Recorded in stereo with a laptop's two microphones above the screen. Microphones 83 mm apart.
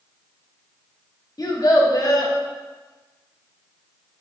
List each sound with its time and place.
1.4 s a child speaking: 50° left (ahead or behind), 1.0 m